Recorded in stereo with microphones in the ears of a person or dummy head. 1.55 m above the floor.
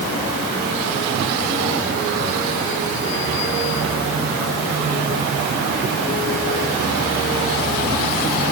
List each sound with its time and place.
Only background noise.